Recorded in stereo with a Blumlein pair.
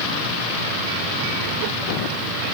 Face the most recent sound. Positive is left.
No sound to turn to.